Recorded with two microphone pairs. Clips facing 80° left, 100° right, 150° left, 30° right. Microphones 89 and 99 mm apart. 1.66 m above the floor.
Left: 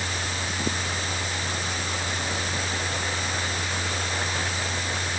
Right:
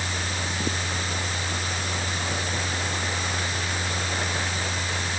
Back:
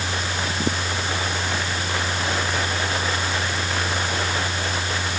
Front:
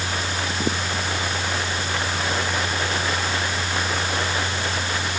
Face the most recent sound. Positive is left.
No sound to turn to.